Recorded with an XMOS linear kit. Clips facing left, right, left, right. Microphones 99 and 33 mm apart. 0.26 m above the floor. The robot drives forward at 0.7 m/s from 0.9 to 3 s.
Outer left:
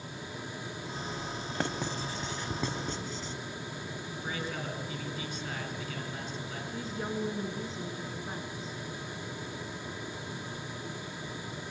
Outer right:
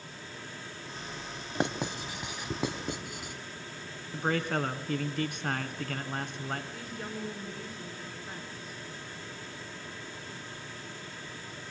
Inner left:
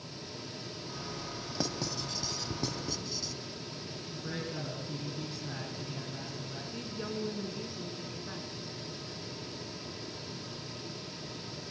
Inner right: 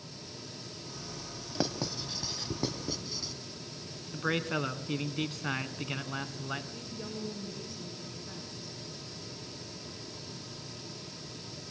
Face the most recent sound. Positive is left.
turn(degrees=25)  # may be behind; listen again after turning